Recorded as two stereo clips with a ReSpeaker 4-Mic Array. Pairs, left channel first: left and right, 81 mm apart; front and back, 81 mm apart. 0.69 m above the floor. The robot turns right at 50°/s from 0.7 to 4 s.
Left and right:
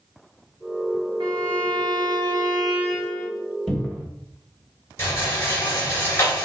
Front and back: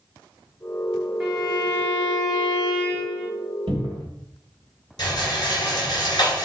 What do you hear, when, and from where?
1.2 s a violin: 95° right, 2 m; by 3.3 s 5° left, 2 m
3.7 s a cupboard door: 175° left, 1.6 m; by 4.1 s 165° right, 1.6 m
5.0 s a rattle: 35° left, 2.5 m